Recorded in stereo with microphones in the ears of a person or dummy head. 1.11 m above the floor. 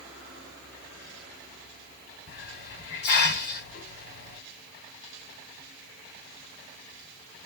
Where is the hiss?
55° left (ahead or behind), 1.4 m.